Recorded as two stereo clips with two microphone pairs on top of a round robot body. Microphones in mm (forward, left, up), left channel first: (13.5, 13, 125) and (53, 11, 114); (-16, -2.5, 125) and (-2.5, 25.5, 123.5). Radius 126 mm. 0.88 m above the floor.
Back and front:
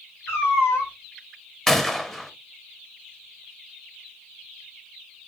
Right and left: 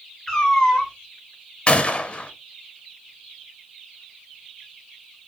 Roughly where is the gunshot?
Right.